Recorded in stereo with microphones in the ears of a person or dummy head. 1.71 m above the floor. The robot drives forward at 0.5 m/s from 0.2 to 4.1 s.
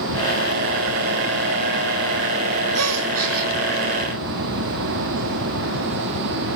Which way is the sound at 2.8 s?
75° right (ahead or behind).